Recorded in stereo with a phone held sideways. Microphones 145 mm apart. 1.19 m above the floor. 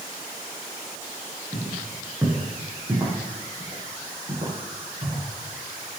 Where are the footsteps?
5° right (ahead or behind), 5.5 m; by 5.2 s 35° right (ahead or behind), 9 m.